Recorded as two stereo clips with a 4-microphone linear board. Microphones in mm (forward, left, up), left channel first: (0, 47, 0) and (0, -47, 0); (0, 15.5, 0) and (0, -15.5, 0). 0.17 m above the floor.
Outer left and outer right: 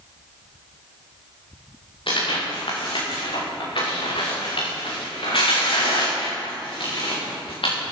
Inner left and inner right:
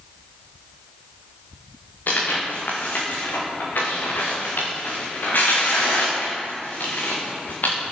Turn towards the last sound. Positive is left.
turn(degrees=65)  # may be behind; listen again after turning